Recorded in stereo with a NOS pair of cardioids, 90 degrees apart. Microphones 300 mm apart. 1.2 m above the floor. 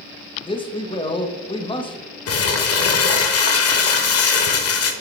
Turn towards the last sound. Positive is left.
turn(degrees=55)